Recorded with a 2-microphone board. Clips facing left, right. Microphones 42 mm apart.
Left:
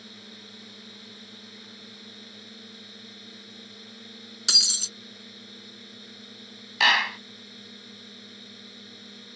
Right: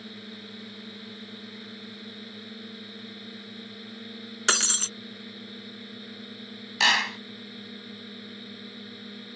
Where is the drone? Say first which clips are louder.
Right 4 dB; 15° right (ahead or behind).